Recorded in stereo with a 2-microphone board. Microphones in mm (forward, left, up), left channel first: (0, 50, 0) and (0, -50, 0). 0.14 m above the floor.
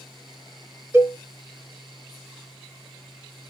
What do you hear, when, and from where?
0.9 s a cowbell: 25° right (ahead or behind), 0.8 m